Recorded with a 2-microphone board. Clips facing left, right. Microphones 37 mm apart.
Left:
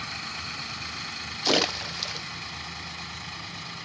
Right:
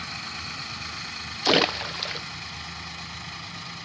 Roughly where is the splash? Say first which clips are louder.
Right 3 dB; right.